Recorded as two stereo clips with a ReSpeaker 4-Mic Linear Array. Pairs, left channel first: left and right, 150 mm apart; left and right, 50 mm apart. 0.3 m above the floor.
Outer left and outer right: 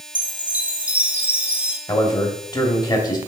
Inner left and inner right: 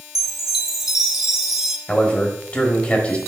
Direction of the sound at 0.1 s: 10° right (ahead or behind).